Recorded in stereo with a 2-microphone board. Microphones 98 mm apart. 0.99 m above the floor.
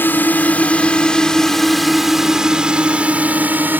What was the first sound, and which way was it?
A drone, 20° left (ahead or behind).